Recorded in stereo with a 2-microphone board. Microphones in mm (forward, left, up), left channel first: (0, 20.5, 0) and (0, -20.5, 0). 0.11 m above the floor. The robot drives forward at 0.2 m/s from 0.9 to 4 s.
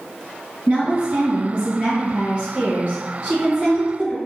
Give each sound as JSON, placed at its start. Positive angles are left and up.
{"t": 0.7, "sound": "a woman speaking", "side_deg": -35, "distance_m": 1.9}